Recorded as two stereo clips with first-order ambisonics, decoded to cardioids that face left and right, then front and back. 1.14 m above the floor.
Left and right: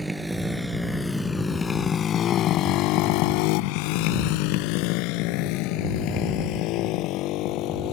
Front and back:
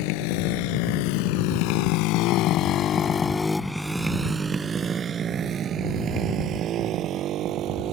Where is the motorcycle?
5° right; by 7.9 s 130° left.